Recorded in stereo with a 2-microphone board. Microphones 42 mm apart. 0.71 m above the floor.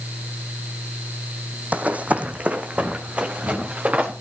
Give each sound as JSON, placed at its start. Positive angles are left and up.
{"t": 1.7, "sound": "running footsteps", "side_deg": -35, "distance_m": 1.4}